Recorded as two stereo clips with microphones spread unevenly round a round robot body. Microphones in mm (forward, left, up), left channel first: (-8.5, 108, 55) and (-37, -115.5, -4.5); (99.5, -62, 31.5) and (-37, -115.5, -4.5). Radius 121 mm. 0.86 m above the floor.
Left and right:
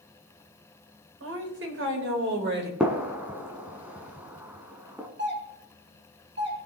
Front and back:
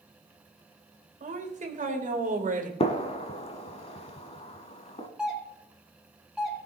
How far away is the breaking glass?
I don't hear breaking glass.